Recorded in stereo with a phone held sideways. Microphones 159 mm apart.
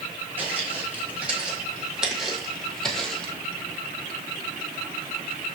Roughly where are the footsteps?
Centre.